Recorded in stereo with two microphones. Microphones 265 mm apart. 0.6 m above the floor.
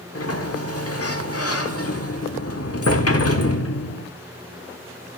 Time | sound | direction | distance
0.1 | a sliding door | 60° left (ahead or behind) | 1.3 m